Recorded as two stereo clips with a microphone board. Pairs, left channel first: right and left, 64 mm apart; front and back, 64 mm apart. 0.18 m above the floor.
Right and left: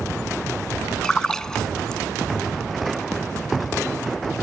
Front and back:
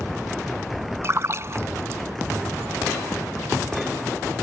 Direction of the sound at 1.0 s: 165° right.